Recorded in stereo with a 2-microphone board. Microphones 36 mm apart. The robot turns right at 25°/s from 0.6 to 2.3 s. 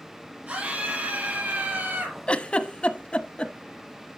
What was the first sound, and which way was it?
A scream, 130° right.